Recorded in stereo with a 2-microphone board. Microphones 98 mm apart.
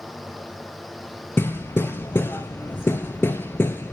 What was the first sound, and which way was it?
Hammering, 20° left (ahead or behind).